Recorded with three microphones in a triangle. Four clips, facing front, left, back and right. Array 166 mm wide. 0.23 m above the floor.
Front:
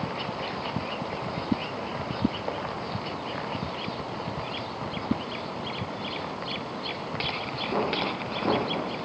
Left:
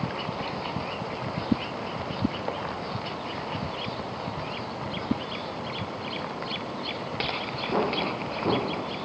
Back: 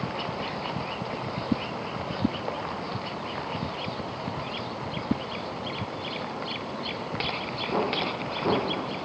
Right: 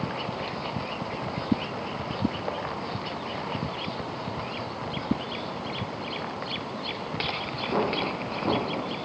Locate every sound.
Only background noise.